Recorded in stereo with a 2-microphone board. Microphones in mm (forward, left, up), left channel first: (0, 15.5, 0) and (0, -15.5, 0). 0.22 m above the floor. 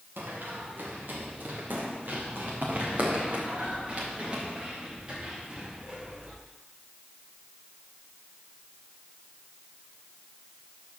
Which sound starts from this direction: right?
Running footsteps, at 0.2 s.